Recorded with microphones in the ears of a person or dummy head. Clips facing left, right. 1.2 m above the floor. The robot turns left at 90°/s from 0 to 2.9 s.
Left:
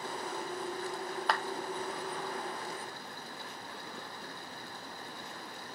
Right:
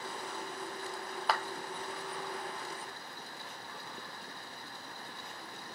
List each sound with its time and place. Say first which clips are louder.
1.3 s a clap: even; centre (ahead or behind), 1.0 m; by 1.4 s 15° right (ahead or behind), 1.0 m